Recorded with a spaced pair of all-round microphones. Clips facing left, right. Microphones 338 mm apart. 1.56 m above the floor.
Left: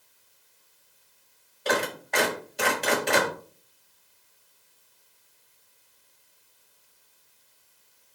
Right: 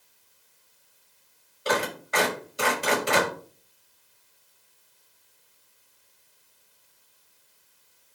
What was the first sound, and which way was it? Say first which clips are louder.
A clap: even; 10° right (ahead or behind).